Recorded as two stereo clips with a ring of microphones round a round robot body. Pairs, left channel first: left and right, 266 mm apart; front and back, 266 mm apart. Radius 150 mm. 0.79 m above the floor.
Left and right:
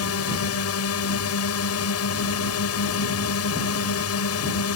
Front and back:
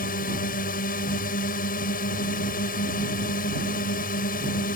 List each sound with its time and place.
0.0 s a drone: 60° left